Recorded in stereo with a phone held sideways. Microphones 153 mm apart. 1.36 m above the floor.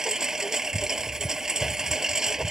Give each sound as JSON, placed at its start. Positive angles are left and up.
{"t": 0.0, "sound": "a lawn mower", "side_deg": -5}